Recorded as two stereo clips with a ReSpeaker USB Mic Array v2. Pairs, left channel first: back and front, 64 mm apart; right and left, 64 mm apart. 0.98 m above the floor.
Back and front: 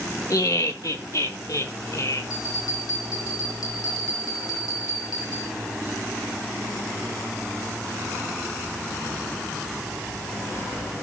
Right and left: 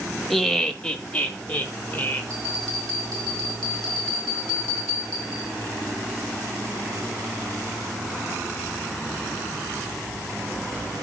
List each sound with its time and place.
0.3 s laughter: 175° right, 1.3 m; by 2.2 s 155° right, 3.5 m
2.3 s a bell: 170° right, 5 m